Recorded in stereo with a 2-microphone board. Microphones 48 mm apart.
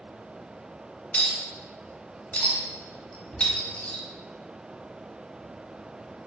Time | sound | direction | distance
1.1 | a clink | 25° left (ahead or behind) | 0.9 m